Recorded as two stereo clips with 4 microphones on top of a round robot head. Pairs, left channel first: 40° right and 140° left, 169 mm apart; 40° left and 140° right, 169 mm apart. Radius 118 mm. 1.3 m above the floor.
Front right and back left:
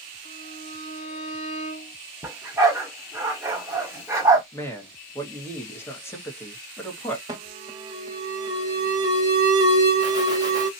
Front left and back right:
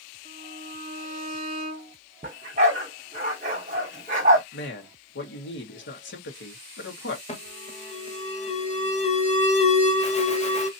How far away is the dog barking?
About 1.0 m.